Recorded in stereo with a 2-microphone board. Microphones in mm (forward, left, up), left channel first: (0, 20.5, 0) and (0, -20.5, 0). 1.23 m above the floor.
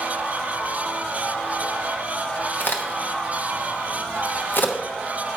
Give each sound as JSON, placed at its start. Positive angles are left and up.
{"t": 2.6, "sound": "a crack", "side_deg": 55, "distance_m": 1.0}